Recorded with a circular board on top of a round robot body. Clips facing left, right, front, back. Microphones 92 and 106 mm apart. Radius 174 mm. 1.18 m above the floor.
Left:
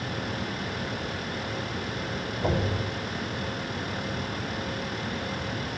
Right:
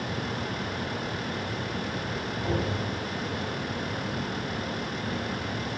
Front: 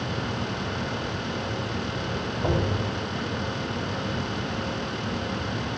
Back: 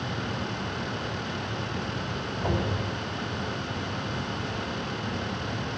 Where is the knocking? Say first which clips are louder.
Left 2 dB, front 3 dB; 65° left, 4.5 m.